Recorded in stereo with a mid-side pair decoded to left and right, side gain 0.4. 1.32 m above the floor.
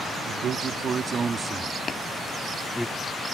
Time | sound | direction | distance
0.3 | a man speaking | 70° right | ?
1.9 | tapping | 45° left | ?